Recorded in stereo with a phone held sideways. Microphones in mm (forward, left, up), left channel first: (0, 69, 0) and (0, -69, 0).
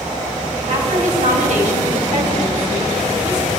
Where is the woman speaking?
60° right (ahead or behind), 5.5 m.